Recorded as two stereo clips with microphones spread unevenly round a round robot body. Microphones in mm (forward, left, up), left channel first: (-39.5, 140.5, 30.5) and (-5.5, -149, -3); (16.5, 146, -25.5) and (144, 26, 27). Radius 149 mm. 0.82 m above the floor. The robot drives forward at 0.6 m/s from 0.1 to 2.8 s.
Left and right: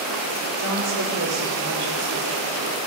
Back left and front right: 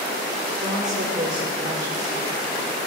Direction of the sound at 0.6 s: 85° right.